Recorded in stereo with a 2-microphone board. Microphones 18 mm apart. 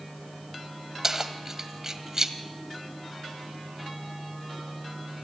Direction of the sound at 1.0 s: 25° right (ahead or behind).